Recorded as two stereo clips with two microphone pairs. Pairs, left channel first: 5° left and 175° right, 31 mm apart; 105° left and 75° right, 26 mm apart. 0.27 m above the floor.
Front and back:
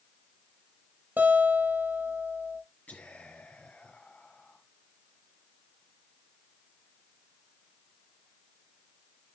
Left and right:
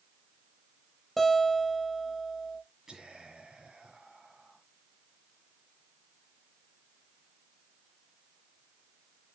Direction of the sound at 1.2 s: 170° right.